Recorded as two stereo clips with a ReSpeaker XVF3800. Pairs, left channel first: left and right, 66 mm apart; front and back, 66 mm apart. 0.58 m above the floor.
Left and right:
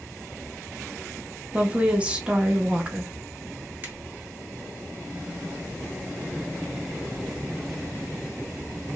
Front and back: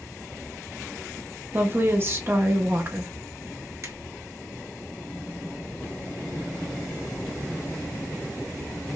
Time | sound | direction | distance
1.5 | a woman speaking | 150° right | 0.9 m
3.8 | a finger snap | 145° right | 1.8 m